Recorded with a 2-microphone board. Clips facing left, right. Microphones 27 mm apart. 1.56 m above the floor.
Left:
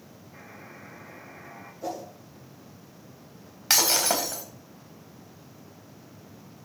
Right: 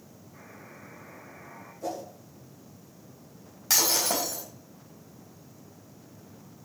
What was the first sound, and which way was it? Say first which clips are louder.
A buzzer: left 2 dB; 60° left (ahead or behind).